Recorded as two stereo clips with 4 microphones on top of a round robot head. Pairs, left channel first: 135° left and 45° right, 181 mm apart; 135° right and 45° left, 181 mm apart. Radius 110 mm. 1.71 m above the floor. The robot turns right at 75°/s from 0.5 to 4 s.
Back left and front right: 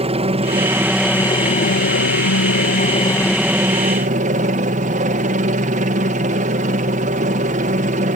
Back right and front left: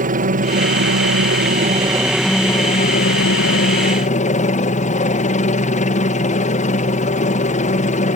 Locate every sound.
0.0 s a helicopter: 10° left; by 8.2 s 90° right